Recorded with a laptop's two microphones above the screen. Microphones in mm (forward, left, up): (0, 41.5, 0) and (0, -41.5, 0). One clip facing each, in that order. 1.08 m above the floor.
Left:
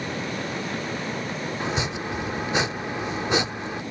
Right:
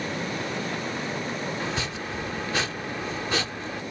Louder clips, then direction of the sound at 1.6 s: Left 3 dB; 20° left (ahead or behind).